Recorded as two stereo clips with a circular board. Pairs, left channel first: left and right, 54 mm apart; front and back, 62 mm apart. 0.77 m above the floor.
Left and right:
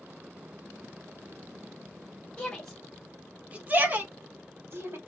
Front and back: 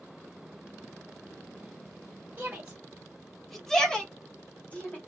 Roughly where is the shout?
Behind left.